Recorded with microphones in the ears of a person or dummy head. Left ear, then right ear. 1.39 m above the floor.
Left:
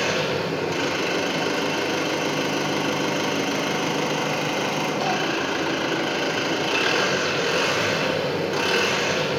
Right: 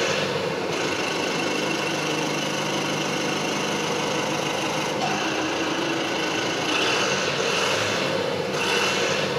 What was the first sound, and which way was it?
An engine running, 10° left (ahead or behind).